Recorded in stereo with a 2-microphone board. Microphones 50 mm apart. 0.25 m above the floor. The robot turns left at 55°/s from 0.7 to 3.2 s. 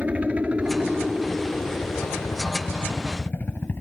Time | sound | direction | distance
0.0 | a helicopter | 30° right (ahead or behind) | ?